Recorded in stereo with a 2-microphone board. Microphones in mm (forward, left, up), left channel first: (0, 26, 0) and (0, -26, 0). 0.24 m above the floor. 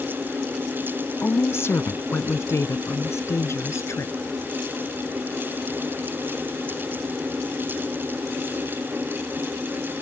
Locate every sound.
1.2 s a woman speaking: 50° left (ahead or behind); by 4.1 s 65° left (ahead or behind)